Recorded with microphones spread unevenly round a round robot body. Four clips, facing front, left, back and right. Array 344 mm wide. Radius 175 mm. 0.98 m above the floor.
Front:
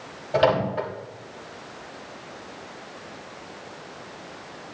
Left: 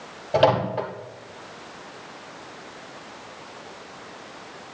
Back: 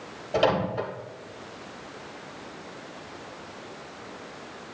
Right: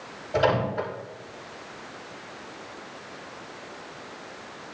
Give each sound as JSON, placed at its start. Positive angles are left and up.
{"t": 0.3, "sound": "a microwave", "azimuth_deg": 65, "distance_m": 3.5}